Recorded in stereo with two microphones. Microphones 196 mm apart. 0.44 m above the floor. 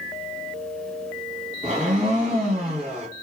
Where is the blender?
35° right (ahead or behind), 1.2 m.